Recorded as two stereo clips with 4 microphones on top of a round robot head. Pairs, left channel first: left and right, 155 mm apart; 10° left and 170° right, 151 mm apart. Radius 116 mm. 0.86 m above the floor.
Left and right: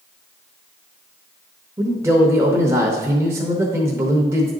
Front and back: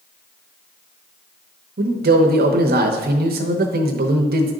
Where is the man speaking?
165° right, 0.9 m.